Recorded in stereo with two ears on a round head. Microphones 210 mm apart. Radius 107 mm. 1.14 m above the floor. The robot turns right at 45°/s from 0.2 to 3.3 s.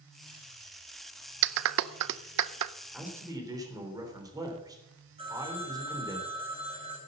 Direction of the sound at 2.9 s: Centre (ahead or behind).